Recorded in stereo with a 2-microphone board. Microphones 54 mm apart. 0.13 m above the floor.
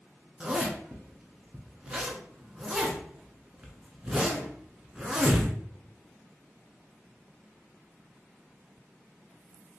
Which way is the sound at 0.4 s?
20° right (ahead or behind).